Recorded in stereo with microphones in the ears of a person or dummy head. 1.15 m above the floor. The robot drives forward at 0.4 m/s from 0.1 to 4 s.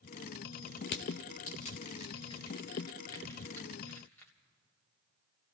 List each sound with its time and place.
0.9 s crushing: 40° left (ahead or behind), 0.5 m; by 4.3 s 15° left (ahead or behind), 1.4 m